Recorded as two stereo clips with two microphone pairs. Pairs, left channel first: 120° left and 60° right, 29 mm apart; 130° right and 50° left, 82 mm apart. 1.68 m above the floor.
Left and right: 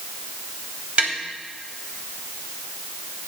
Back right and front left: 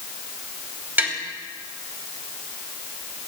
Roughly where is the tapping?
Ahead.